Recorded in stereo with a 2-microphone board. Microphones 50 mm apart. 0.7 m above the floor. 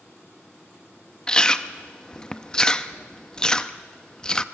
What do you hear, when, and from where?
1.3 s chewing: 15° left (ahead or behind), 0.6 m